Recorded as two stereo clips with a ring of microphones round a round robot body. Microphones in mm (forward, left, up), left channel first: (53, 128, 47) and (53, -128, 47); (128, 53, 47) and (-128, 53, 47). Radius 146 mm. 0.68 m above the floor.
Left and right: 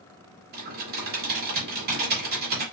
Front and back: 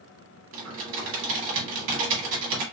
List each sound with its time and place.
0.5 s typing on a keyboard: 145° right, 1.2 m